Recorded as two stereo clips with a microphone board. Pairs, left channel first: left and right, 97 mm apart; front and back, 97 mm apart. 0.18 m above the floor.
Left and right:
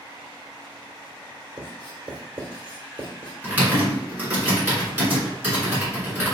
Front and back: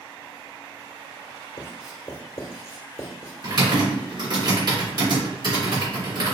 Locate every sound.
1.6 s writing: 55° right, 1.5 m
3.4 s typing on a keyboard: 160° right, 2.5 m